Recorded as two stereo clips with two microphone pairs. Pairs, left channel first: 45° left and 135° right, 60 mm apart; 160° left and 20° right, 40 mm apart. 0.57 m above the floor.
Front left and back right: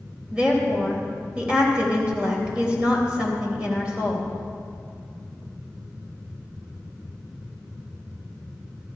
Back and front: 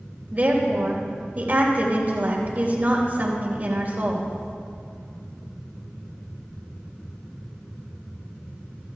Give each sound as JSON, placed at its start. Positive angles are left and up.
{"t": 0.3, "sound": "a woman speaking", "azimuth_deg": -60, "distance_m": 3.0}